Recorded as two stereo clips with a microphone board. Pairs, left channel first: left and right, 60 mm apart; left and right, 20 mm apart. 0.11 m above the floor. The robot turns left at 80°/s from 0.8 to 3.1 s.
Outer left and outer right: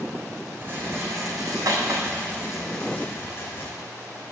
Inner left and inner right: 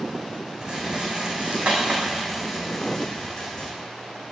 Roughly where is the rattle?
Right.